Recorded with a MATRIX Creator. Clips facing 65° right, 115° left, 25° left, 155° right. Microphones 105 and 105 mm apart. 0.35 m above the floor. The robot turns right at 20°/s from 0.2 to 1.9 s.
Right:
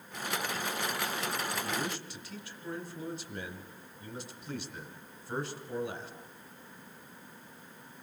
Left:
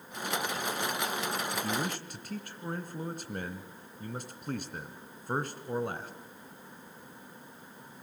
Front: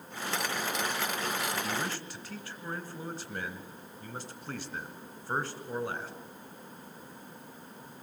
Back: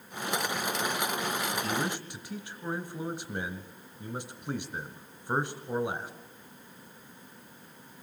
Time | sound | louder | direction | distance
1.5 | a man speaking | left 2 dB, back 3 dB | 115° left | 1.8 m